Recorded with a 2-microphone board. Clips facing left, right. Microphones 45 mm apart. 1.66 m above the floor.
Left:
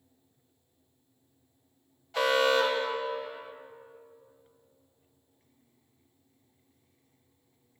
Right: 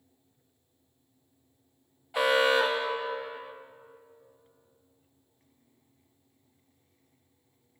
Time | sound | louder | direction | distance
2.1 | an alarm | right 1 dB | 15° right (ahead or behind) | 1.5 m